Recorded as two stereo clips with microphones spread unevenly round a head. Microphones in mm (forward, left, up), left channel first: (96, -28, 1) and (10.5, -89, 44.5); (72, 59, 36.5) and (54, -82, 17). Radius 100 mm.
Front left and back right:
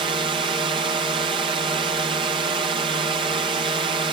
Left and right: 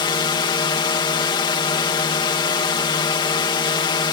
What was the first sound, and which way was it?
A drone, 150° left.